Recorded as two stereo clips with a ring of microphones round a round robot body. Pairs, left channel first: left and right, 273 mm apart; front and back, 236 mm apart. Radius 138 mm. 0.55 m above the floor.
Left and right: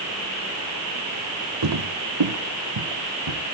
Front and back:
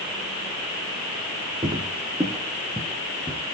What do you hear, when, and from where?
1.6 s footsteps: 105° right, 1.6 m; by 3.5 s 90° right, 4 m